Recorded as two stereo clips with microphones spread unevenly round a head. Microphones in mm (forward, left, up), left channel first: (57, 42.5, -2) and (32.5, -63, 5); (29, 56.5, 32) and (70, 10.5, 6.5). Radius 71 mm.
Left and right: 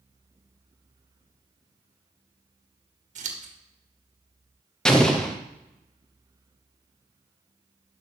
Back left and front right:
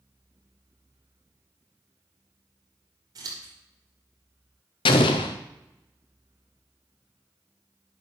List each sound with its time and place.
3.1 s scissors: 85° right, 2 m
4.8 s an explosion: 160° left, 0.6 m